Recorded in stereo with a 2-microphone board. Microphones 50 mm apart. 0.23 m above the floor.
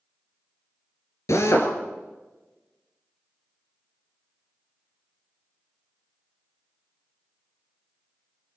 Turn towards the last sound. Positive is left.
turn(degrees=65)  # may be behind; listen again after turning